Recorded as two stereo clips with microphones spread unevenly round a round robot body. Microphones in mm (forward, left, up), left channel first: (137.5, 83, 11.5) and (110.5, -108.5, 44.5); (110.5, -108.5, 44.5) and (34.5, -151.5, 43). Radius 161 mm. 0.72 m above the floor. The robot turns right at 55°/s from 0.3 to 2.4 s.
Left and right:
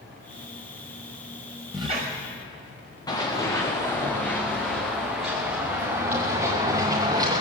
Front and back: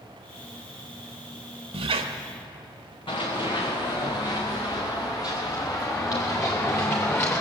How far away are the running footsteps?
About 4 m.